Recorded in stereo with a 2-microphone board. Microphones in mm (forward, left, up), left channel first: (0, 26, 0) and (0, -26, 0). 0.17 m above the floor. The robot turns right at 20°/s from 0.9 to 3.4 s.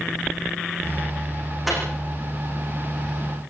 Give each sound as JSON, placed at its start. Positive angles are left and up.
{"t": 1.7, "sound": "a microwave", "side_deg": 0, "distance_m": 10.0}